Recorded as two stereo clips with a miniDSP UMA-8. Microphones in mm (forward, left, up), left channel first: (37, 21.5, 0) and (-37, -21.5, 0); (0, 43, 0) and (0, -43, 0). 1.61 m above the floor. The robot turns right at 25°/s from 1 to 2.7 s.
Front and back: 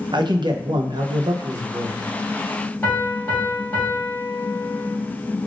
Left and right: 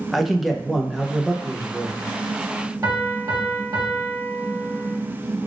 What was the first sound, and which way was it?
A man speaking, straight behind.